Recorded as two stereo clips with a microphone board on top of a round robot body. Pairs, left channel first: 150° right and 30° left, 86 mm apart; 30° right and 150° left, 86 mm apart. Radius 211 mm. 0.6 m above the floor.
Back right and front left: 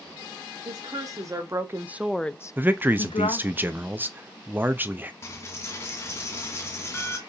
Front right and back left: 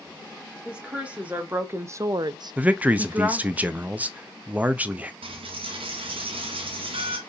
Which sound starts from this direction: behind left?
A dropped coin, at 5.2 s.